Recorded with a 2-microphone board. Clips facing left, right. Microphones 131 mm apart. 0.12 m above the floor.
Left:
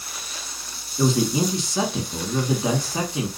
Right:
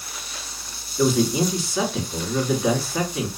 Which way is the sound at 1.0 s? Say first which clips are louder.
Right 1 dB; 20° left (ahead or behind).